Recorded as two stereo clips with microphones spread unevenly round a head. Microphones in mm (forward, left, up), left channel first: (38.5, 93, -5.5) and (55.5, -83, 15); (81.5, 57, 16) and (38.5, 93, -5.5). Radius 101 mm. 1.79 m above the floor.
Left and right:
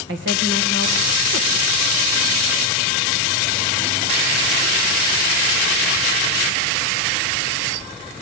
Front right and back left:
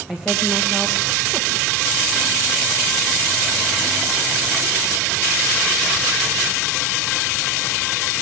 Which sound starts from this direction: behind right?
A woman speaking, at 0.1 s.